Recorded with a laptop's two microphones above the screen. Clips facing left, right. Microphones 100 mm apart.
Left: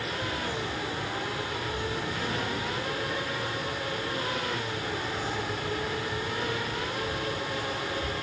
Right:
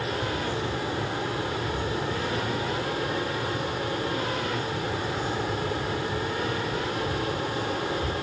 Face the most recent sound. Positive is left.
turn(degrees=-35)  # may be behind; listen again after turning